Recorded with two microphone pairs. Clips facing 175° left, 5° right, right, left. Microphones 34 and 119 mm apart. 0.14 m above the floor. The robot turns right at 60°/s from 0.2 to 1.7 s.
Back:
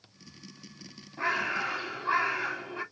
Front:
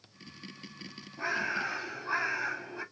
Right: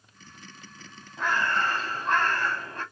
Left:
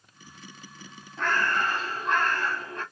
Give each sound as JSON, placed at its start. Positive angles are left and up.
{"t": 1.2, "sound": "a bird", "azimuth_deg": -170, "distance_m": 3.5}